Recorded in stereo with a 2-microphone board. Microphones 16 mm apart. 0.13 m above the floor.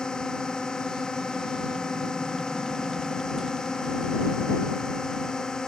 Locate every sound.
0.0 s a drone: 50° left (ahead or behind); by 5.7 s 40° left (ahead or behind)